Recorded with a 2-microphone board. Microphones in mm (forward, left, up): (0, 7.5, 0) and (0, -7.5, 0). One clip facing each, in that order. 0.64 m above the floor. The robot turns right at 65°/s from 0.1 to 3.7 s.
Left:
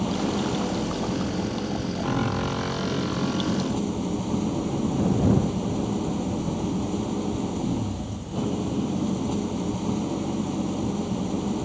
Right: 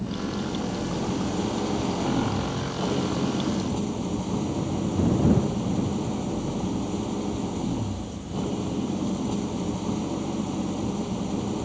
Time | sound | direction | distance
0.0 | an engine running | 130° left | ?